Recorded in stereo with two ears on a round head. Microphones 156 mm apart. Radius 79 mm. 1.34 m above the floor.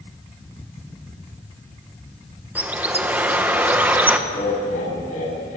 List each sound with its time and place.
2.5 s a bird: 10° right (ahead or behind), 1.4 m
4.3 s laughter: 45° left (ahead or behind), 9.5 m